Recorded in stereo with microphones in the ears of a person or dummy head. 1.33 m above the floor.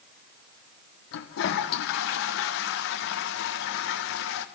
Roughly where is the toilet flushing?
Left.